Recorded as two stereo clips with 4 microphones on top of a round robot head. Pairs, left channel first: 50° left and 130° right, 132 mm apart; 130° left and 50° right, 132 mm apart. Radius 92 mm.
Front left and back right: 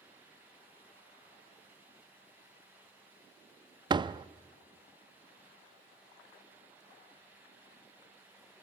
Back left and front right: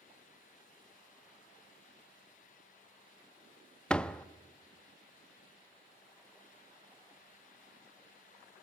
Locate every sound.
3.9 s a door slam: 150° right, 0.6 m